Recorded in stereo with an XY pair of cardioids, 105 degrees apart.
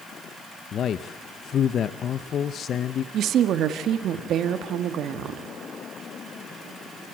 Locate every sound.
0.7 s a man speaking: 55° left, 0.8 m
3.1 s a woman speaking: 70° right, 1.7 m